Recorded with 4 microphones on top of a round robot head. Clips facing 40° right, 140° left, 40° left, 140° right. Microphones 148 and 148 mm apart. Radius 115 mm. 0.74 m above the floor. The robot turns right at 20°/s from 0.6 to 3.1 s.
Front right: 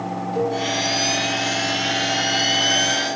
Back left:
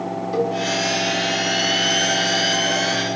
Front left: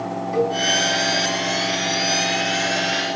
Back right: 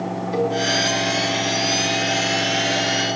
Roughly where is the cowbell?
Behind.